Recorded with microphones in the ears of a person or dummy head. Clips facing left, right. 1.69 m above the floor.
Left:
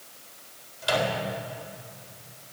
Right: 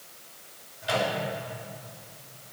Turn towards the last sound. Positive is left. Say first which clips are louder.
# left 2 dB
turn(degrees=70)  # may be behind; listen again after turning